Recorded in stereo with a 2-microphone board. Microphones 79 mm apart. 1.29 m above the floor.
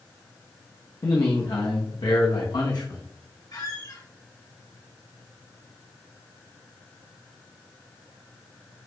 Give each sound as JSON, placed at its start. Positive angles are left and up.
{"t": 1.0, "sound": "a man speaking", "side_deg": 70, "distance_m": 1.2}
{"t": 3.5, "sound": "a squeak", "side_deg": 60, "distance_m": 2.5}